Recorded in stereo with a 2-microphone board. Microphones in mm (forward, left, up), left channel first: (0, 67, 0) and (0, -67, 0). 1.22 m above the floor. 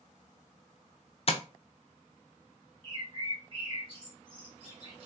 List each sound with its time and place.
1.3 s tapping: 45° left (ahead or behind), 0.5 m
2.8 s a bird: 40° right (ahead or behind), 1.4 m